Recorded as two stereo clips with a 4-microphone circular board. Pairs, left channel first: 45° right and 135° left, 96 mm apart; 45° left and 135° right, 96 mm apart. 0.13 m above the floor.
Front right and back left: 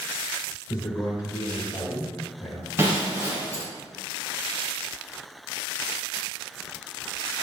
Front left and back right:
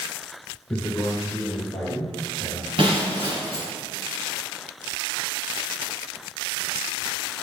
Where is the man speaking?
20° right, 2 m.